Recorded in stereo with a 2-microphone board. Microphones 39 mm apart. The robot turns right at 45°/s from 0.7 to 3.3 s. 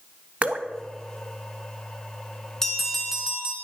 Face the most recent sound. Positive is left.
turn(degrees=-165)